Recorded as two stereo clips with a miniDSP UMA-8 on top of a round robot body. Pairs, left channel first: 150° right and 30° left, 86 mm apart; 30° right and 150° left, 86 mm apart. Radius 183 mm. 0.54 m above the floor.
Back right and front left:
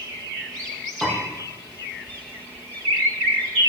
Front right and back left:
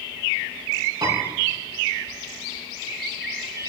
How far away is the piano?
About 6 m.